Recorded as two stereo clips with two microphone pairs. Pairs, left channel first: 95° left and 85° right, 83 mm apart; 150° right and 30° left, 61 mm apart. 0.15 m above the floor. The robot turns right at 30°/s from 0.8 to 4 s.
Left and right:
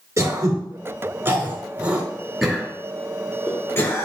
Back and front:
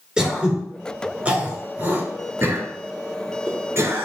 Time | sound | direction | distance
0.2 | throat clearing | 45° right | 2.5 m